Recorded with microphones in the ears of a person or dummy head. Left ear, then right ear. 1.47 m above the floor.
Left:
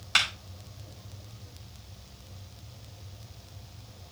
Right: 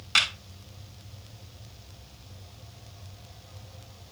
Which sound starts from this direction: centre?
A clap, at 0.1 s.